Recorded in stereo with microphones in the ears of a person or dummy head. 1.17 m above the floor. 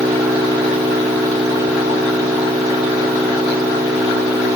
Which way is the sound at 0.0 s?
15° right (ahead or behind).